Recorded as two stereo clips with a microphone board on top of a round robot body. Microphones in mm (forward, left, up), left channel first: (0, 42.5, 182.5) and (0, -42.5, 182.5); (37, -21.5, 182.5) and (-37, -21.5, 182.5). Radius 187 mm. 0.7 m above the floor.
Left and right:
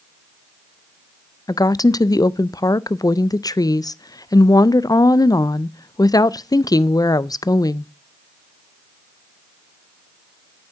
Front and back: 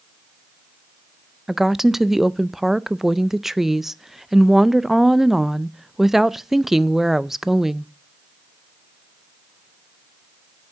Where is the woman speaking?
95° left, 0.6 m.